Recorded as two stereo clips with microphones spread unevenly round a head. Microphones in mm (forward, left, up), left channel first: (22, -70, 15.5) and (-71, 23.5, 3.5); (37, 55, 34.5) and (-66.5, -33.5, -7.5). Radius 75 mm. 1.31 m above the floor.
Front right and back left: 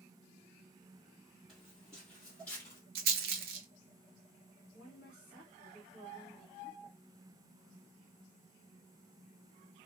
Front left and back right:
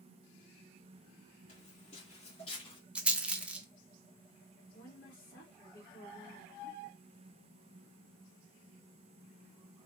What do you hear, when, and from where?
1.5 s footsteps: 45° left, 3 m; by 2.8 s 20° left, 1.8 m
3.0 s a rattle: 140° left, 0.7 m
4.7 s a woman speaking: 45° left, 2 m